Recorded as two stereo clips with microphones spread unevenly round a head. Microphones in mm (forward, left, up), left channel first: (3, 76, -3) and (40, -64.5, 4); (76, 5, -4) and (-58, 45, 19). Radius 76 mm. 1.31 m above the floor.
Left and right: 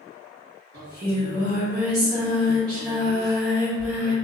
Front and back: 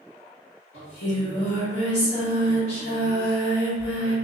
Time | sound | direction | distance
0.7 | singing | 15° right | 1.6 m